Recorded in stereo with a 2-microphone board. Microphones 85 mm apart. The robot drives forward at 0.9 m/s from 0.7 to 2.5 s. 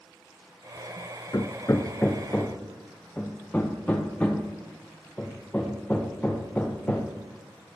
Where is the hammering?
55° left (ahead or behind), 0.5 m; by 7.8 s 20° left (ahead or behind), 1.2 m.